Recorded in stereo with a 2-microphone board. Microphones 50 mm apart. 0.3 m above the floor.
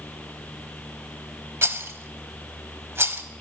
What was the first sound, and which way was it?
A rattle, 55° right (ahead or behind).